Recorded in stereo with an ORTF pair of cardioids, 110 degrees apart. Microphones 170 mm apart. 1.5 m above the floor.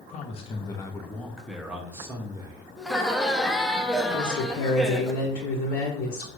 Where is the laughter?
Straight ahead, 0.9 m.